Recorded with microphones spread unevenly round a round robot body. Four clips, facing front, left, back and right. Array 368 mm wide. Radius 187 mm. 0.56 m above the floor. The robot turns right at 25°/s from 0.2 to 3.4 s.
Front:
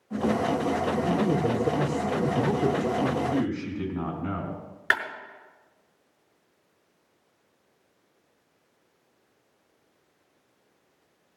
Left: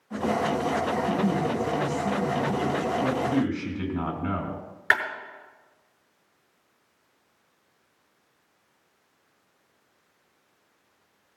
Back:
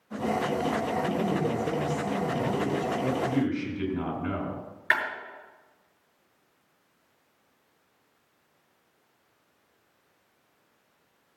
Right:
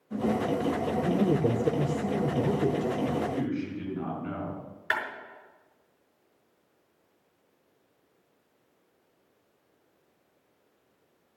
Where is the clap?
40° left, 6 m.